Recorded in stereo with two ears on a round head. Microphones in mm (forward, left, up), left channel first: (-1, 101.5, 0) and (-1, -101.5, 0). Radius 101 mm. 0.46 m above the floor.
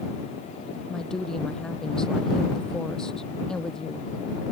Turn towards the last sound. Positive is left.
turn(degrees=5)  # may be behind; listen again after turning